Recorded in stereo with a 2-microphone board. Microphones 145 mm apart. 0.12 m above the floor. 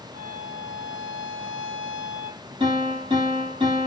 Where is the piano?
40° right (ahead or behind), 3.5 m.